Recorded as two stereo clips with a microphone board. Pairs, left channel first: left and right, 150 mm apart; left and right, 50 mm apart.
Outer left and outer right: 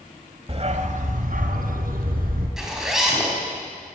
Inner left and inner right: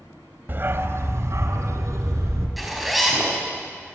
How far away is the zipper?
About 5 m.